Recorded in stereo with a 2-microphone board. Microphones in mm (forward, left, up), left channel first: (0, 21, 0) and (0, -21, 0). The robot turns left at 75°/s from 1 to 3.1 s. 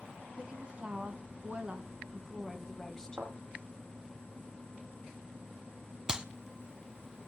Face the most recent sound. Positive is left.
turn(degrees=-15)  # may be behind; listen again after turning